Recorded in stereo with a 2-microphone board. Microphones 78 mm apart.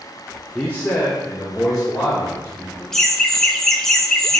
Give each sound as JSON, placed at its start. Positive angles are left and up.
{"t": 0.6, "sound": "a man speaking", "side_deg": 10, "distance_m": 0.5}
{"t": 2.9, "sound": "laughter", "side_deg": 5, "distance_m": 0.6}